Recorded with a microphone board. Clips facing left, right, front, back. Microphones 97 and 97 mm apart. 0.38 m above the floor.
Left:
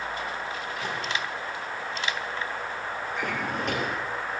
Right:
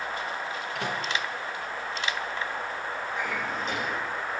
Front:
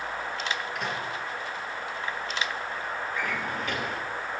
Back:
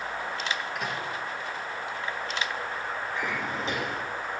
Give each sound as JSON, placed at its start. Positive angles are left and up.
{"t": 0.8, "sound": "a microwave", "azimuth_deg": -90, "distance_m": 3.5}
{"t": 3.1, "sound": "a drawer", "azimuth_deg": 115, "distance_m": 2.0}